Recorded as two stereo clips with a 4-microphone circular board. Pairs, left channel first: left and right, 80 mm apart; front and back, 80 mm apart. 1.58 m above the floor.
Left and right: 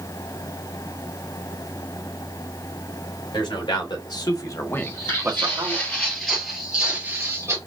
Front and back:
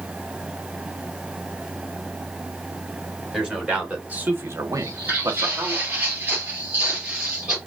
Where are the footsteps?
125° left, 2.5 m; by 7.6 s 105° right, 1.8 m.